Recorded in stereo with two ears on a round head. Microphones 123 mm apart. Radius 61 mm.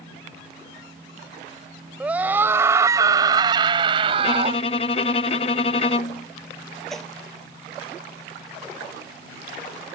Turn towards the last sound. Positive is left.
turn(degrees=5)  # may be behind; listen again after turning